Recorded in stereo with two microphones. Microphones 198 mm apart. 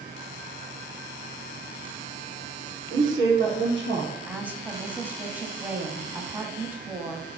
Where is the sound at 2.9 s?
75° right (ahead or behind), 4.5 m.